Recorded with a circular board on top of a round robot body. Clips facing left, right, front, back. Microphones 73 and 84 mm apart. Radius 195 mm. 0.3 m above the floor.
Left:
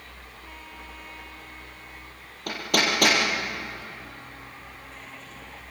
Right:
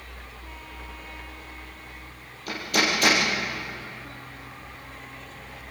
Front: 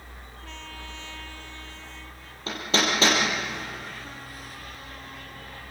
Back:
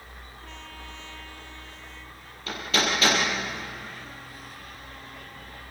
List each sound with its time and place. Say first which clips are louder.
2.5 s hammering: even, front 1 dB; 60° left, 6 m